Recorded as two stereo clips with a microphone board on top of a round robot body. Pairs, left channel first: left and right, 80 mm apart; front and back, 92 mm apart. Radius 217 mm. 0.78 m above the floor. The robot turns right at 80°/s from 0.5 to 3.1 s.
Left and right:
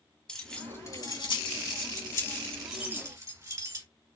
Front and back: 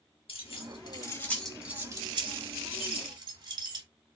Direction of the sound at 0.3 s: 10° left.